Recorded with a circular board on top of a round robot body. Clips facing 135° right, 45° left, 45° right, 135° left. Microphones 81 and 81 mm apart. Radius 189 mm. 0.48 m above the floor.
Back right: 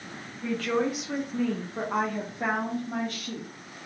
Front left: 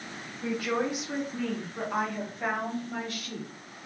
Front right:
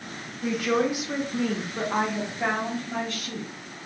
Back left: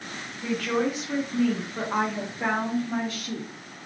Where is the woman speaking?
Straight ahead, 1.1 m; by 3.9 s 155° right, 1.7 m.